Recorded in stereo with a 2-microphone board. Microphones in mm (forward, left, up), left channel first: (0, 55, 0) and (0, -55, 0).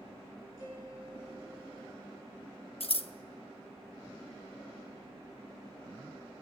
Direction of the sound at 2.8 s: 60° left (ahead or behind).